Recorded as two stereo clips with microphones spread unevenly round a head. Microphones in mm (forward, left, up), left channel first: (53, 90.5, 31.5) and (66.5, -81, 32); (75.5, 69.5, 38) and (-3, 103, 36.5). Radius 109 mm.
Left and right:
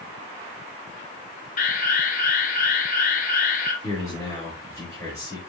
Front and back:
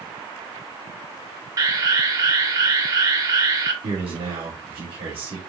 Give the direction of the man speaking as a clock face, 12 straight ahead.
6 o'clock.